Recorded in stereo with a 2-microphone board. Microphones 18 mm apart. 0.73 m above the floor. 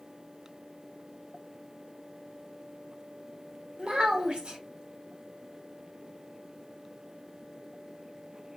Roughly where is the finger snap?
No finger snap in this recording.